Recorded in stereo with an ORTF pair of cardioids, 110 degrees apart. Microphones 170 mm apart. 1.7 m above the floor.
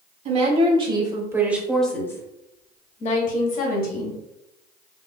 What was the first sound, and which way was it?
A woman speaking, 40° right.